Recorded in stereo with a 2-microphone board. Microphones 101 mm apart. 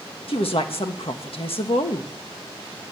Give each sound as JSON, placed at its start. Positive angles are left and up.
{"t": 0.3, "sound": "a woman speaking", "side_deg": 70, "distance_m": 1.4}